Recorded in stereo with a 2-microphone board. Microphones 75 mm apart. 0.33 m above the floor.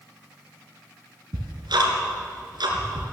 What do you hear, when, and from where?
1.3 s ticking: 75° right (ahead or behind), 2.5 m